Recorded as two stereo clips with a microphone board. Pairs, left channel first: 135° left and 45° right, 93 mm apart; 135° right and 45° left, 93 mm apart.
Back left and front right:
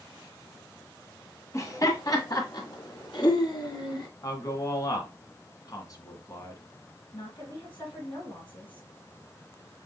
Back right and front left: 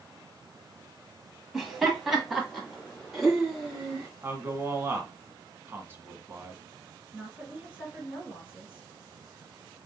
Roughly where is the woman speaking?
Behind left.